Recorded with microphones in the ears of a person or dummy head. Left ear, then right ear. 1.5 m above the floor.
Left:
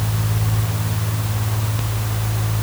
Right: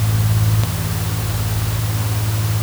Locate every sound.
Only background noise.